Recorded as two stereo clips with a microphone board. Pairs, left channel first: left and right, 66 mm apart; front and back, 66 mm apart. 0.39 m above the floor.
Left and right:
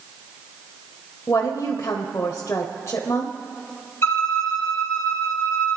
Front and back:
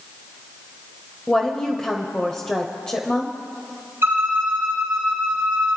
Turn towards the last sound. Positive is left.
turn(degrees=135)